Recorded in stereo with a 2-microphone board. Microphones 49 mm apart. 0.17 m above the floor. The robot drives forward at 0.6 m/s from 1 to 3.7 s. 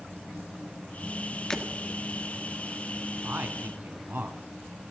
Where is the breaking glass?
15° left (ahead or behind), 1.6 m.